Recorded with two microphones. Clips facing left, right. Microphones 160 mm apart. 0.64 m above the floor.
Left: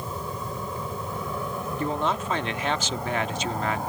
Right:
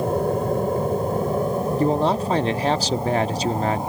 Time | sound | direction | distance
0.0 | an aircraft | 60° right (ahead or behind) | ?
1.8 | a man speaking | 35° right (ahead or behind) | ?